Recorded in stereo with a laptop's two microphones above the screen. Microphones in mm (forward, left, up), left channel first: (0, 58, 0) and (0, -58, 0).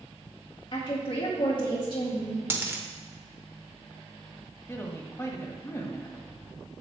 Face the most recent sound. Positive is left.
turn(degrees=20)  # may be behind; listen again after turning